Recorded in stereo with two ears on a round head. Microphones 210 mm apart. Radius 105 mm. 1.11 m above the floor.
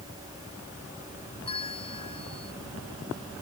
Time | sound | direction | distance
1.4 | a bell | 25° left (ahead or behind) | ?